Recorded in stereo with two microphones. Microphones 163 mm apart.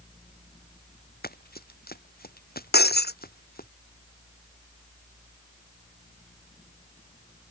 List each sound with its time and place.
1.2 s running footsteps: 70° left (ahead or behind); by 3.7 s 65° left (ahead or behind)
2.7 s breaking glass: 85° left